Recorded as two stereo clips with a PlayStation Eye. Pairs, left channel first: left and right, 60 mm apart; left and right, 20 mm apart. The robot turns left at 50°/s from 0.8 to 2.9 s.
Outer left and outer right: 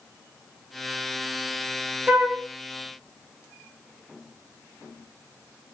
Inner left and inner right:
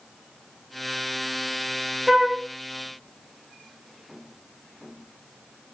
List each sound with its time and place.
2.1 s a flute: 25° right (ahead or behind), 0.6 m; by 2.4 s 15° right (ahead or behind), 0.6 m